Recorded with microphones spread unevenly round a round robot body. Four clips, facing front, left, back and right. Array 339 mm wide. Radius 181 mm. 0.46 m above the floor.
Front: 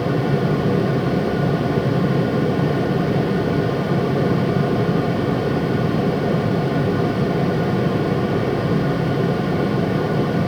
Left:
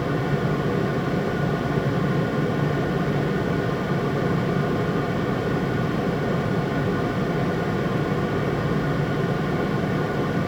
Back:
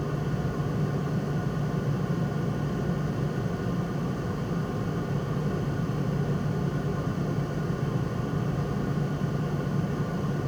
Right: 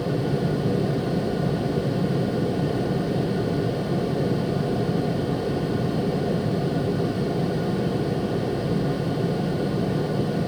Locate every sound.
Only background noise.